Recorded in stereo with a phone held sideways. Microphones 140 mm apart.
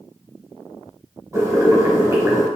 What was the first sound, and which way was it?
Boiling, 20° right (ahead or behind).